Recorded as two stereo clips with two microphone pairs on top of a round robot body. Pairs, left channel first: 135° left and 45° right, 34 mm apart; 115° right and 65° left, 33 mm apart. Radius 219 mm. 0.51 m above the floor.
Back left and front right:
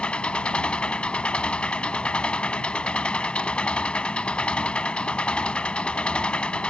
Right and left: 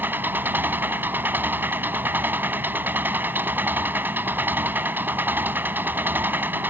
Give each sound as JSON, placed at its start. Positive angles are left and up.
{"t": 0.0, "sound": "an engine running", "azimuth_deg": 75}